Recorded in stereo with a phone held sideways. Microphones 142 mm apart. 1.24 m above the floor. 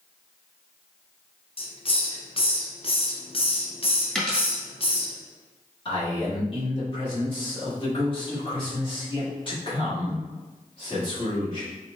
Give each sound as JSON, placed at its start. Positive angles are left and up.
{"t": 1.6, "sound": "a hiss", "side_deg": 40, "distance_m": 0.5}
{"t": 4.2, "sound": "a dropped coin", "side_deg": 5, "distance_m": 1.5}
{"t": 5.8, "sound": "a man speaking", "side_deg": 40, "distance_m": 1.7}